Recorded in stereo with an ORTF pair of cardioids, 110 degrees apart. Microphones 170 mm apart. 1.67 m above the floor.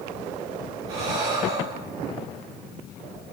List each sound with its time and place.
0.9 s breathing: 65° right, 3 m